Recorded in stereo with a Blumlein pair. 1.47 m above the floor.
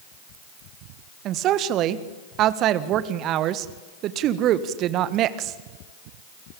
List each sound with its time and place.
1.2 s a woman speaking: 35° right, 1.6 m